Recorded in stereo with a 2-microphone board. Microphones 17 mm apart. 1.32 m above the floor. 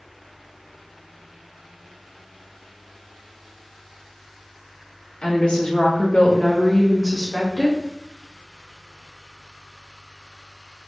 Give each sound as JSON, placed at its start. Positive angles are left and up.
{"t": 5.2, "sound": "a woman speaking", "side_deg": 65, "distance_m": 2.0}